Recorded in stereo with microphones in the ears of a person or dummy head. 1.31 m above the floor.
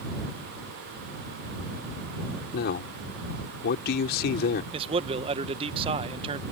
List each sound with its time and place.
2.5 s a man speaking: 60° left (ahead or behind)
4.7 s a man speaking: 25° right (ahead or behind)